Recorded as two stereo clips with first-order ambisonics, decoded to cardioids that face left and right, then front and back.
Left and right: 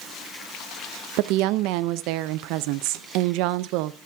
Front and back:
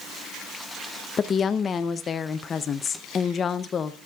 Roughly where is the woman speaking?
Ahead right.